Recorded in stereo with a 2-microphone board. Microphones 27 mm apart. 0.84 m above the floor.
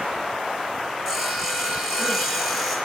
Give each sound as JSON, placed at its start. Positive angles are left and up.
{"t": 1.1, "sound": "sawing", "side_deg": -10, "distance_m": 5.0}